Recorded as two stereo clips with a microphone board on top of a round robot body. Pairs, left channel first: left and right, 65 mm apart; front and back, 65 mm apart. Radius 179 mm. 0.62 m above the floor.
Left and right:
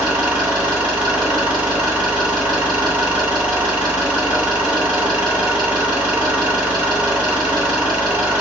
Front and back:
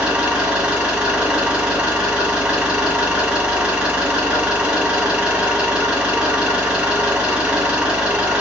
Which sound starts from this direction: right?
An engine running, at 0.0 s.